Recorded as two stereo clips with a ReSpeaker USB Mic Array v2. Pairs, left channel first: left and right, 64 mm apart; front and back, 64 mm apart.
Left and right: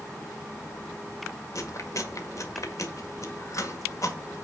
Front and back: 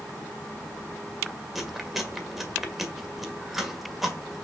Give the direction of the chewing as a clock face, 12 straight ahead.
9 o'clock.